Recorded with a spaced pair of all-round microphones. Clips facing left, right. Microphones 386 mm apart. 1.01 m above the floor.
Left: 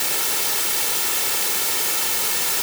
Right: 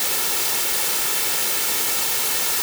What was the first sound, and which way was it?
Only background noise.